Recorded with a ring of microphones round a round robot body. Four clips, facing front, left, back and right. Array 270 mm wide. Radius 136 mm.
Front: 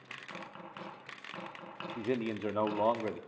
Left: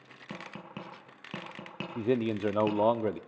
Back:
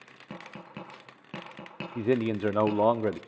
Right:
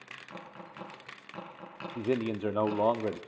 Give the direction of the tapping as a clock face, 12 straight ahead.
8 o'clock.